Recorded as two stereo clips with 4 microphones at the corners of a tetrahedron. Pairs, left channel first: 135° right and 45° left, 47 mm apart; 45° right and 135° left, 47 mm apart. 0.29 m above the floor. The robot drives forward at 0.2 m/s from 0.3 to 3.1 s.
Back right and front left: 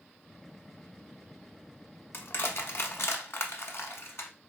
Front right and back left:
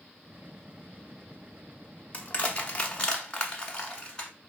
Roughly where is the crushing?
Right.